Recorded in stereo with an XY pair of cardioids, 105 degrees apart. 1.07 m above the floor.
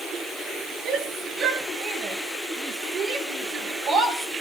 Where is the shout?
60° right, 9 m; by 4.4 s 70° right, 10.5 m.